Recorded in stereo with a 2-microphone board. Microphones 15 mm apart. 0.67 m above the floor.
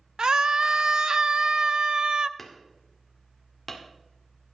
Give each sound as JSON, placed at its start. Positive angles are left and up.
{"t": 0.2, "sound": "a scream", "side_deg": -45, "distance_m": 0.7}
{"t": 2.4, "sound": "hammering", "side_deg": 10, "distance_m": 1.9}